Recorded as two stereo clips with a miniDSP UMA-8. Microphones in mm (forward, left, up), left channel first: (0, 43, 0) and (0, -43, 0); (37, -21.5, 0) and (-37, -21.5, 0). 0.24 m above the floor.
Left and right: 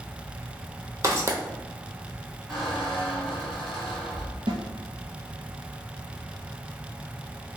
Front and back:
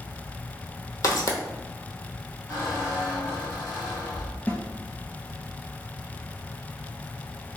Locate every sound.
1.0 s footsteps: 40° right, 0.6 m
2.5 s a squeak: 10° left, 1.2 m
4.5 s a snare drum: 65° right, 0.6 m